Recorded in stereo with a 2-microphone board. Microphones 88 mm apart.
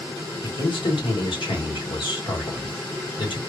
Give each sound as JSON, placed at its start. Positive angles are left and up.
{"t": 0.4, "sound": "a man speaking", "side_deg": 75, "distance_m": 1.5}